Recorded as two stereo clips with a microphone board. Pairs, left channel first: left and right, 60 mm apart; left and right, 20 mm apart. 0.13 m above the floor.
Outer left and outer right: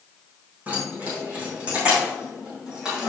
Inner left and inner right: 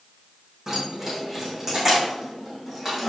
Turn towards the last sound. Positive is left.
turn(degrees=-10)  # may be behind; listen again after turning